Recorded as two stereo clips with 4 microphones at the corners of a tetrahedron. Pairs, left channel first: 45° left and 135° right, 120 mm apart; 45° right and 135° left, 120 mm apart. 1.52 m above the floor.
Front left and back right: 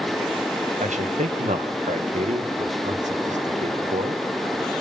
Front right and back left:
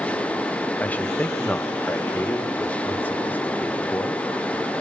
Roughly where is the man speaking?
Behind right.